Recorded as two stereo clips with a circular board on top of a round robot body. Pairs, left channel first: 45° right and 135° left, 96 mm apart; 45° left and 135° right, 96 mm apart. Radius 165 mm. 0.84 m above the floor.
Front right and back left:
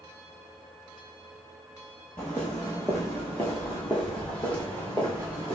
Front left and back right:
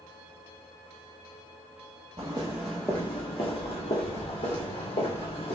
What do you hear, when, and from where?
2.2 s footsteps: 125° right, 0.9 m; by 5.5 s 35° left, 2 m